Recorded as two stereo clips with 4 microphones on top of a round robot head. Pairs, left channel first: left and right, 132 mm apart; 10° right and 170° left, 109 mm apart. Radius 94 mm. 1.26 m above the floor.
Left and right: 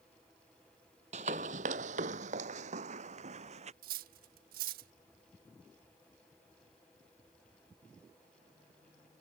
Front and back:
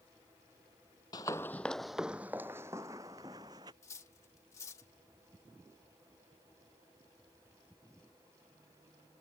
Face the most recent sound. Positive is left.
turn(degrees=-85)